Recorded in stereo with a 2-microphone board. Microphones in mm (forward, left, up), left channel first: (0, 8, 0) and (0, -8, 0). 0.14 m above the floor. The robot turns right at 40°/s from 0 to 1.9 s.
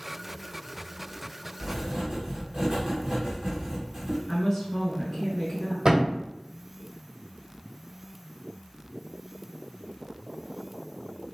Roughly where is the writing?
Right.